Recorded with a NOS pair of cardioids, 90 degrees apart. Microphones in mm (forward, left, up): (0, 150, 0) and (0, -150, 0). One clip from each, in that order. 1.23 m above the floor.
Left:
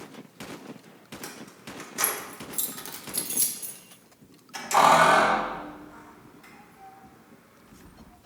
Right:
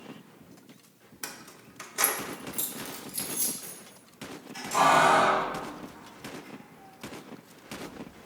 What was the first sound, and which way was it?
Keys jangling, 25° right.